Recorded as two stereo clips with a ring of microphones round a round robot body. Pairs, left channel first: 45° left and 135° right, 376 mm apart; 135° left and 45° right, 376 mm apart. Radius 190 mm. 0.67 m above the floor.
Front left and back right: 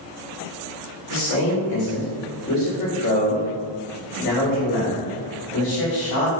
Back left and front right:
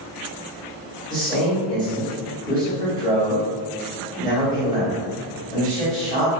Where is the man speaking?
70° left, 1.5 m.